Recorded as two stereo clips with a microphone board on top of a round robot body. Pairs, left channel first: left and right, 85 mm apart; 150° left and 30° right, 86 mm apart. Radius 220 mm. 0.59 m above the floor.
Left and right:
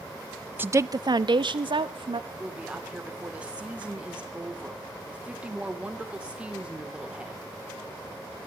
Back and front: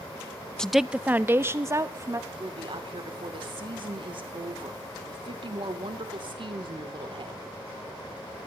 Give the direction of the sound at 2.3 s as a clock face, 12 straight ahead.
12 o'clock.